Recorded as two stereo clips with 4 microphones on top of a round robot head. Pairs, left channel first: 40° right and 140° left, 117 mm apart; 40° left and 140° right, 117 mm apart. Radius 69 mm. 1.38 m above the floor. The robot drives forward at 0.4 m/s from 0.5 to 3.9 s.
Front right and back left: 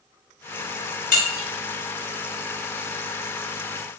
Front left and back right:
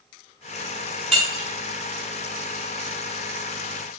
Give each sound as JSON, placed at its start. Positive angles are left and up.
{"t": 1.1, "sound": "breaking glass", "azimuth_deg": -45, "distance_m": 1.7}